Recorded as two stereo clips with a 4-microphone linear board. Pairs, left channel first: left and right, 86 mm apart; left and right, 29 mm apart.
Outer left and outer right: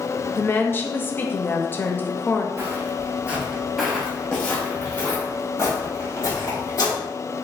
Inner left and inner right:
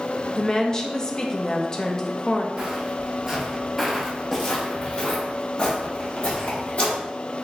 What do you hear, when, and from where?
0.3 s a woman speaking: 25° left (ahead or behind), 0.5 m
2.6 s footsteps: 35° right (ahead or behind), 1.2 m; by 7.0 s 40° left (ahead or behind), 2.5 m